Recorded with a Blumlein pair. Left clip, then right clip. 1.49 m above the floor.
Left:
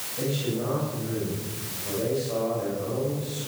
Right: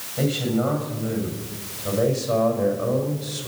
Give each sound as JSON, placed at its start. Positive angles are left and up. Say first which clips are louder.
{"t": 0.2, "sound": "a man speaking", "louder": "right 5 dB", "azimuth_deg": -50, "distance_m": 8.5}